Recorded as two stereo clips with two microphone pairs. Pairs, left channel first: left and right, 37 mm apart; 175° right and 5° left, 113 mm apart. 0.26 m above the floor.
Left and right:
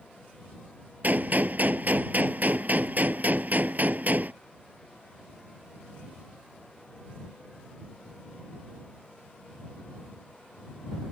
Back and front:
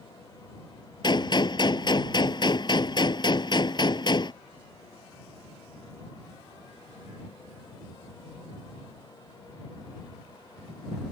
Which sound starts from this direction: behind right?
A gunshot, at 1.0 s.